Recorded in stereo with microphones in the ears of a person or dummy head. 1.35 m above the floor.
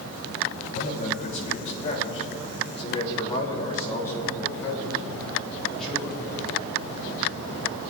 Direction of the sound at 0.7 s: 45° left (ahead or behind).